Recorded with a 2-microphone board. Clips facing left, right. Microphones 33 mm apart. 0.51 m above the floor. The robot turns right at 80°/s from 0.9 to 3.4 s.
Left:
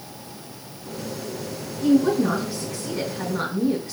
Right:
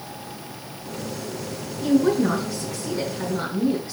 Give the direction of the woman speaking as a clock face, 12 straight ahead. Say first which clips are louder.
Left 1 dB; 1 o'clock.